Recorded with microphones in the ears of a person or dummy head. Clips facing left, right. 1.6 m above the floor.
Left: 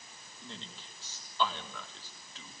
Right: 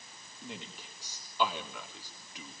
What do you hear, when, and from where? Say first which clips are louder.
0.4 s a man speaking: right 4 dB; 10° right (ahead or behind), 4 m